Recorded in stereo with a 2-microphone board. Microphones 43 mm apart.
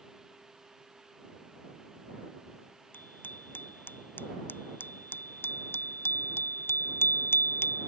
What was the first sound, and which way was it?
A bicycle bell, 50° left (ahead or behind).